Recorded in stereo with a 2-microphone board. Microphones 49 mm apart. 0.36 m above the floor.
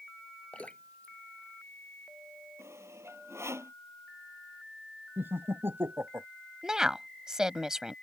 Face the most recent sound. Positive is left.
turn(degrees=-15)  # may be behind; listen again after turning